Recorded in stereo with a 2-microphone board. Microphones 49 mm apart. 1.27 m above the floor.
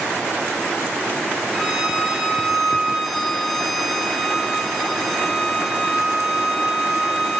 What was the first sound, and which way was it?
A violin, centre (ahead or behind).